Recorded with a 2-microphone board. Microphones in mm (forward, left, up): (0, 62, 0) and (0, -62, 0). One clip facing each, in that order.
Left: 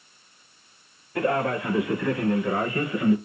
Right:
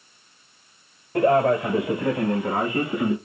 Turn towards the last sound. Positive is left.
turn(degrees=-75)  # may be behind; listen again after turning